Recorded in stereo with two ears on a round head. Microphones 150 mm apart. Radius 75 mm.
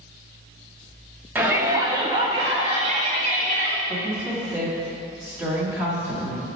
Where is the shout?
10° right (ahead or behind), 1.2 m; by 3.8 s 50° right (ahead or behind), 1.9 m.